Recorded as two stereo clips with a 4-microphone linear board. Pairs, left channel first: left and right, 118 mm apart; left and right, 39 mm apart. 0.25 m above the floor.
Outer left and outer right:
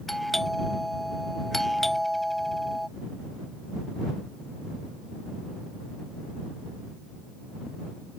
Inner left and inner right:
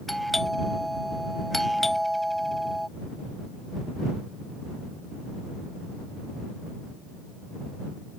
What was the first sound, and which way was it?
A doorbell, centre (ahead or behind).